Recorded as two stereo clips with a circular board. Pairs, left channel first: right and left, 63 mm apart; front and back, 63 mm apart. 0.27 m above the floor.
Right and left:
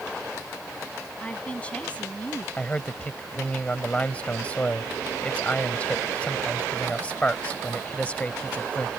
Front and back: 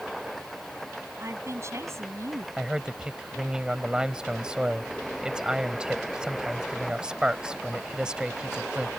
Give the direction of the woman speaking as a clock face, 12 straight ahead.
5 o'clock.